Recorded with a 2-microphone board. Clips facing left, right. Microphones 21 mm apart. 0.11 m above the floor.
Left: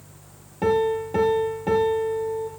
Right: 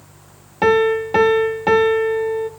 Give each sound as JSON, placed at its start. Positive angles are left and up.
{"t": 0.6, "sound": "a piano", "side_deg": -55, "distance_m": 1.0}